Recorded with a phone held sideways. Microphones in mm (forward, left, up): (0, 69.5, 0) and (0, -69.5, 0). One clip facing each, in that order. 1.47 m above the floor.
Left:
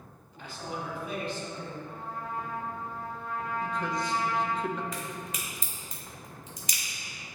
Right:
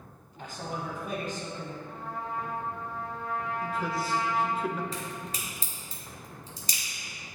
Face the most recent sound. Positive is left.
turn(degrees=-35)  # may be behind; listen again after turning